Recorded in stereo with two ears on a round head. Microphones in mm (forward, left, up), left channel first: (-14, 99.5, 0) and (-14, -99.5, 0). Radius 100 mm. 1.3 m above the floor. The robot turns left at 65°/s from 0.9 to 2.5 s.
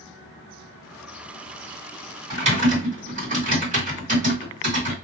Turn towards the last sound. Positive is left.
turn(degrees=-35)  # may be behind; listen again after turning